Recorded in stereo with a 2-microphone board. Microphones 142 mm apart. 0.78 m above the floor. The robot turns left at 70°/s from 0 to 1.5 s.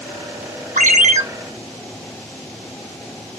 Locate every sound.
0.8 s a ringtone: 80° right, 0.6 m; by 1.2 s 110° right, 0.6 m